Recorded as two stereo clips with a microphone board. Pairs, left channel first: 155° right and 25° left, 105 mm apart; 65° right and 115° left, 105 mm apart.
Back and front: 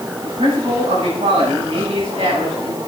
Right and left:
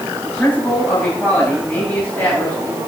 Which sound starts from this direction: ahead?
A man speaking, at 0.2 s.